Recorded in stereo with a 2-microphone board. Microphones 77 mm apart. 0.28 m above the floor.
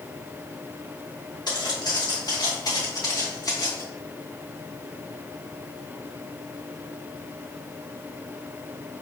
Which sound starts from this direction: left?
Footsteps, at 1.5 s.